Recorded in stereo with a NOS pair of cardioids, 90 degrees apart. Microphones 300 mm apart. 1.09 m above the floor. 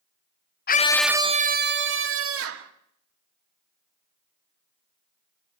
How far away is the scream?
About 0.8 m.